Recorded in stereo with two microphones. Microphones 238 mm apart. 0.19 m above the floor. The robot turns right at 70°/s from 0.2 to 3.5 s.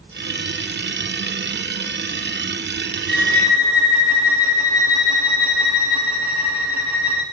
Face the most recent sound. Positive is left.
turn(degrees=70)  # may be behind; listen again after turning